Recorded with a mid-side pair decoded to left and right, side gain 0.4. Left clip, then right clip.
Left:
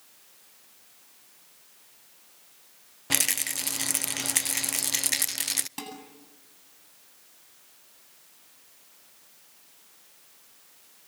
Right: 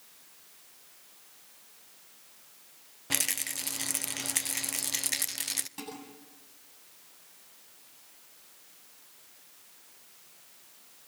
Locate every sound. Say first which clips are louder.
3.1 s a rattle: left 5 dB; 40° left, 0.5 m
5.8 s dishes clattering: left 3 dB; 55° left, 8.5 m